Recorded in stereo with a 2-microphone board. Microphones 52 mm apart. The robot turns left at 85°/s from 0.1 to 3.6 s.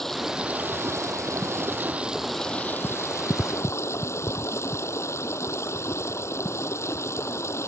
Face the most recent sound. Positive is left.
turn(degrees=65)